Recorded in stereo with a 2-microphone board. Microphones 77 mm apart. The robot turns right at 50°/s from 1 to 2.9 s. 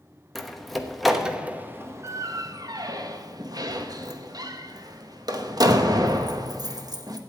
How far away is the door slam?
About 1.0 m.